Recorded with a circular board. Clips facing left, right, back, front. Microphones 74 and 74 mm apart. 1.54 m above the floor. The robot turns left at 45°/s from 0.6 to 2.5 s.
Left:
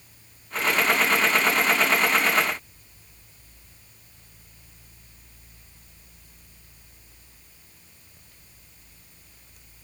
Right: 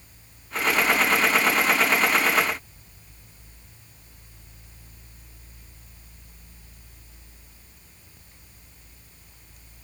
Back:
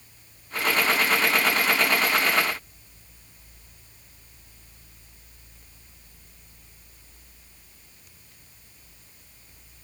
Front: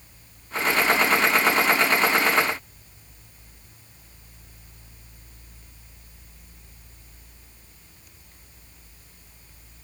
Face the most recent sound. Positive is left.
No sound to turn to.